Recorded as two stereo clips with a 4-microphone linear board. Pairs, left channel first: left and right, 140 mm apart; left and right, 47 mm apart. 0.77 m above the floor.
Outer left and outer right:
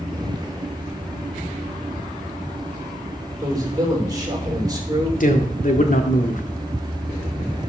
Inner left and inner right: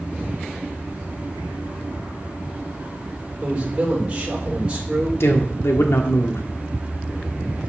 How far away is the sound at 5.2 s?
About 1.4 m.